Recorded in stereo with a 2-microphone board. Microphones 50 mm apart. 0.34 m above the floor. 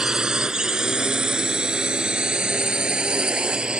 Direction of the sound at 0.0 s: 15° right (ahead or behind).